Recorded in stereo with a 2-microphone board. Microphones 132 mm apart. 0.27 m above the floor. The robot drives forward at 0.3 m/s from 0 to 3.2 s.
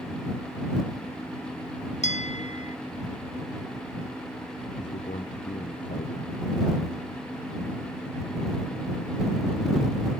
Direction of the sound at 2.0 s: 65° left (ahead or behind).